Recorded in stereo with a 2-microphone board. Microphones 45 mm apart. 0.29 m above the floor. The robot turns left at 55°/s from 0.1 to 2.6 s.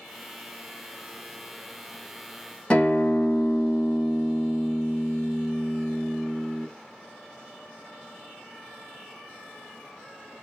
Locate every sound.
2.7 s a guitar: 30° left (ahead or behind), 0.7 m